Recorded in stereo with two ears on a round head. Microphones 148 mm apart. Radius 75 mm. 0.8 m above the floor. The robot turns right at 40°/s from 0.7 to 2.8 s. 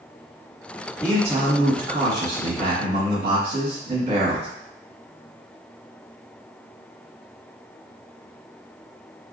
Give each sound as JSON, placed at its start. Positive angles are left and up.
{"t": 1.0, "sound": "a man speaking", "azimuth_deg": -160, "distance_m": 1.6}